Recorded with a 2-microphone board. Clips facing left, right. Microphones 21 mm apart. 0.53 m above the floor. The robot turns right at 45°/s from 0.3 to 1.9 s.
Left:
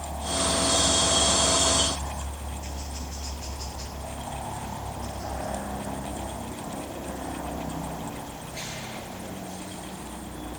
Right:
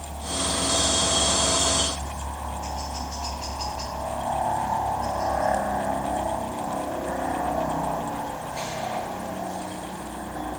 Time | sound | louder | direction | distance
0.0 | a helicopter | left 1 dB | 170° left | ?